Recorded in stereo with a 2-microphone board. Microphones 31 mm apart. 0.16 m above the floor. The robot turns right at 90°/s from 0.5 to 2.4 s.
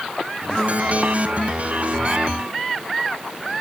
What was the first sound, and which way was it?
Only background noise.